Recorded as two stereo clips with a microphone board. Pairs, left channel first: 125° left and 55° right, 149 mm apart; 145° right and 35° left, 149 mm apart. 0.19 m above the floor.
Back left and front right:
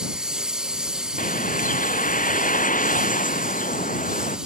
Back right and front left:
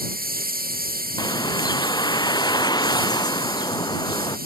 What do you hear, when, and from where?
0.0 s a lawn mower: 30° left
1.2 s a bird: 150° left